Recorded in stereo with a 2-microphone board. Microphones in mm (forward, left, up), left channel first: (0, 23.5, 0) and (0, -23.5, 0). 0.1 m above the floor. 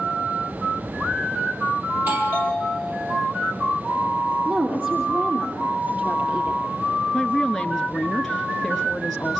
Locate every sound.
1.9 s a doorbell: 55° right (ahead or behind), 3.5 m
4.5 s a woman speaking: 50° right (ahead or behind), 3 m
7.1 s a woman speaking: 5° left (ahead or behind), 1.2 m